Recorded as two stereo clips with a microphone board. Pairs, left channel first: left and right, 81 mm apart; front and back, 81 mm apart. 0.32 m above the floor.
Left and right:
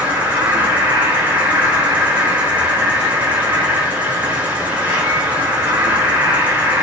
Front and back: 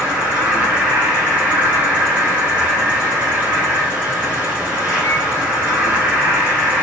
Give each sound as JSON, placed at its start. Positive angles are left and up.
{"t": 0.0, "sound": "an insect", "azimuth_deg": -130, "distance_m": 2.0}